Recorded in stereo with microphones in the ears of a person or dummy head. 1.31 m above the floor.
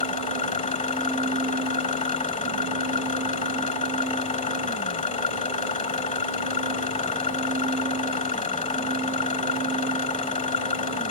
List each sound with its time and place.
0.0 s an engine running: 30° left (ahead or behind)